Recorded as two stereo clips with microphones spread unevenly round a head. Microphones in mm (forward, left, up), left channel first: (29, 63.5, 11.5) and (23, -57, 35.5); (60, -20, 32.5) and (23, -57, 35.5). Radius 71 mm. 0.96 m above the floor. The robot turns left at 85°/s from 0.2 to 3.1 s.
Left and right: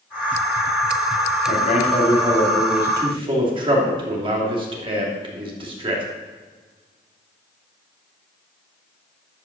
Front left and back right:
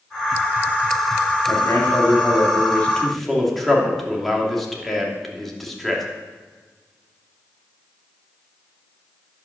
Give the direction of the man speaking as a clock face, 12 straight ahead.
9 o'clock.